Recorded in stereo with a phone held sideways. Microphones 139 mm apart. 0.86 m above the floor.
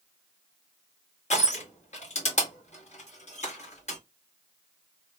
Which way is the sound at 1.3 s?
55° left (ahead or behind).